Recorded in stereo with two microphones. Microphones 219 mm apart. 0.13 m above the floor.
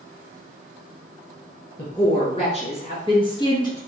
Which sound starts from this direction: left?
A woman speaking, at 1.8 s.